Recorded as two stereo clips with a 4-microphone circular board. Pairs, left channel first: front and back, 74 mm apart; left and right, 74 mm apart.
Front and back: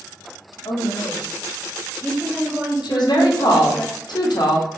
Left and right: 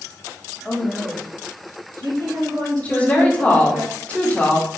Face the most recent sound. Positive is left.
turn(degrees=20)